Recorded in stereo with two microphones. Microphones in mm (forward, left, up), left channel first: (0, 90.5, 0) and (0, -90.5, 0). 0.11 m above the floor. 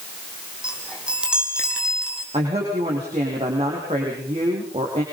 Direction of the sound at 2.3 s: 35° right (ahead or behind).